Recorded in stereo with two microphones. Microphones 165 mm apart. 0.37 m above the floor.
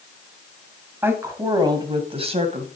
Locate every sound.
1.0 s a woman speaking: 15° right (ahead or behind), 2.5 m; by 2.7 s 45° right (ahead or behind), 2.5 m